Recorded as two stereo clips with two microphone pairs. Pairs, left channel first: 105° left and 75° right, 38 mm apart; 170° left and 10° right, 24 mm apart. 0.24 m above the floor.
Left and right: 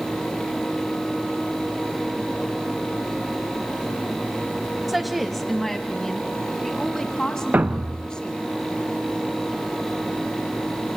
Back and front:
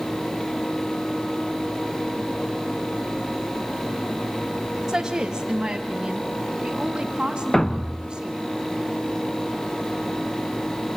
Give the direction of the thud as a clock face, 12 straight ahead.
4 o'clock.